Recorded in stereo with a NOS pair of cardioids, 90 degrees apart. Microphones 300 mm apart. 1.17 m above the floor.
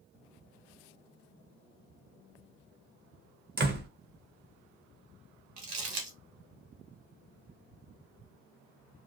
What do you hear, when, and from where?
3.6 s a door slam: 35° right, 0.9 m
5.6 s crumpling: 60° right, 1.4 m